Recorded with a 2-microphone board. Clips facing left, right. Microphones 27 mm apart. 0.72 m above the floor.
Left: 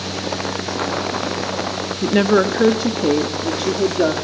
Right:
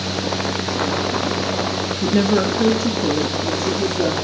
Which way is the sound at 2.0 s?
25° left (ahead or behind).